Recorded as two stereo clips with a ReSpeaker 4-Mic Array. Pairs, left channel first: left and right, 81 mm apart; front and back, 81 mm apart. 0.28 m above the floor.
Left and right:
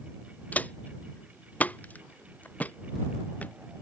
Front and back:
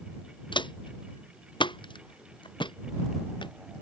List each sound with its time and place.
0.5 s footsteps: 15° left; by 3.5 s 20° left